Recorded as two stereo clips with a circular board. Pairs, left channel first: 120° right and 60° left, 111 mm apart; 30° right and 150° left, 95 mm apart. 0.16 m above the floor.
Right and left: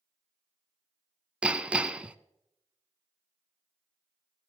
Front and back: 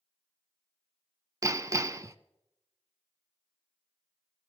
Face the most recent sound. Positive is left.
turn(degrees=130)